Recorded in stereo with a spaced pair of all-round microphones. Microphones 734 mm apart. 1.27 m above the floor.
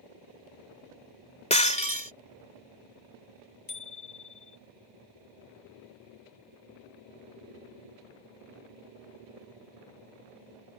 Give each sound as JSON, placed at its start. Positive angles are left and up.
{"t": 1.5, "sound": "breaking glass", "side_deg": 10}
{"t": 3.7, "sound": "a bicycle bell", "side_deg": 25}